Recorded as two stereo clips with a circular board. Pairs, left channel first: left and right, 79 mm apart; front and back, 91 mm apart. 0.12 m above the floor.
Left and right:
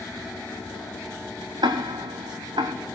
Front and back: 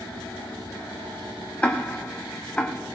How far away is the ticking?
About 1.1 m.